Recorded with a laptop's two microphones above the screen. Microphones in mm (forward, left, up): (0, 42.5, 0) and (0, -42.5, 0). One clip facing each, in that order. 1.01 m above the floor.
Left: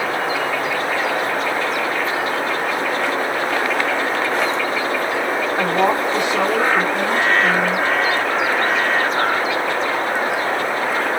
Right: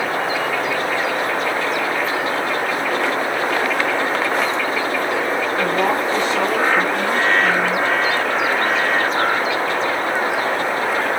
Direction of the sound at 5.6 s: 20° left (ahead or behind).